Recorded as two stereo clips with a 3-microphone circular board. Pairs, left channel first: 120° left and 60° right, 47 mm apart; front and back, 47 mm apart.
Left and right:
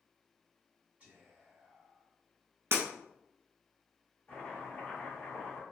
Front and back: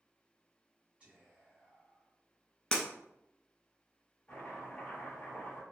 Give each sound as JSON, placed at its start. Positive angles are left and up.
{"t": 1.0, "sound": "whispering", "azimuth_deg": -115, "distance_m": 1.8}
{"t": 2.7, "sound": "breaking glass", "azimuth_deg": -75, "distance_m": 1.3}
{"t": 4.3, "sound": "chopping", "azimuth_deg": 70, "distance_m": 1.7}